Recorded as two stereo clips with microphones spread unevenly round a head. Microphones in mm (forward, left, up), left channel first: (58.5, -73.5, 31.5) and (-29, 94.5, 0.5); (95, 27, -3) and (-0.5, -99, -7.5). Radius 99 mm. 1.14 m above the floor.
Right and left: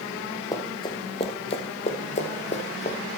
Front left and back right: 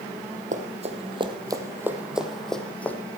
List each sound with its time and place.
0.5 s running footsteps: 120° right, 1.5 m; by 3.0 s 25° right, 1.9 m